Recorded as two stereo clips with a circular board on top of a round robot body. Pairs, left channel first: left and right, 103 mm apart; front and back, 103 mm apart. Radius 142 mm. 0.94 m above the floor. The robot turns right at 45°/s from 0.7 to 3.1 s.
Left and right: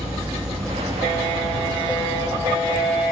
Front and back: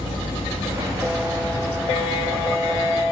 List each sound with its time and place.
0.0 s an insect: 35° right, 3.5 m; by 3.1 s 70° left, 3.5 m